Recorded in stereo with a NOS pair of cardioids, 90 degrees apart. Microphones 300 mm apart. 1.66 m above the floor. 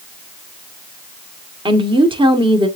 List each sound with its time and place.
1.6 s a woman speaking: 15° right, 1.4 m